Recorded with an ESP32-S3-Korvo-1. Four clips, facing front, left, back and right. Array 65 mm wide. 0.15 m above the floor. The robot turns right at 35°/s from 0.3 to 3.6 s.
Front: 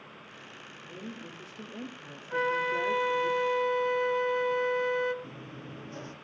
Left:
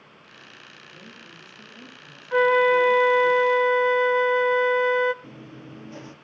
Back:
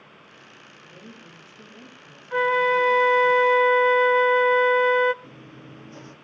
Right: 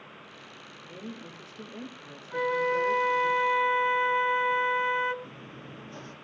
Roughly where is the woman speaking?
Ahead right.